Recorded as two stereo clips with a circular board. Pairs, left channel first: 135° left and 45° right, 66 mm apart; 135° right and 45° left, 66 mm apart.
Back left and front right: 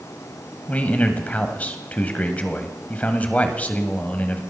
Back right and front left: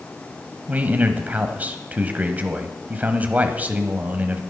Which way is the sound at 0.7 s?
85° left.